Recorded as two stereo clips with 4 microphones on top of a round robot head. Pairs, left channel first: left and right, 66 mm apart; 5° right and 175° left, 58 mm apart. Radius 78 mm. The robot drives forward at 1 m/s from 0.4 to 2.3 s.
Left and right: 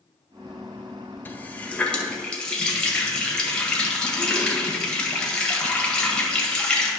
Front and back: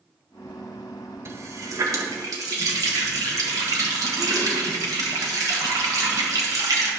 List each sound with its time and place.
1.2 s a running tap: 145° left, 0.8 m; by 6.9 s 165° left, 1.7 m